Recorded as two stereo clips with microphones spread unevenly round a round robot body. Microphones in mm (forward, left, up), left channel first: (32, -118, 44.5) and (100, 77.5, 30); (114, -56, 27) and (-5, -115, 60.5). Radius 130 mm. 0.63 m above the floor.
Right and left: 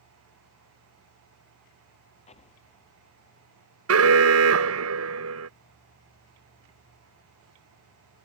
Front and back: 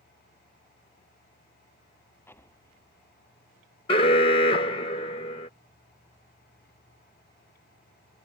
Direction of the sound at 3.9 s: 80° left.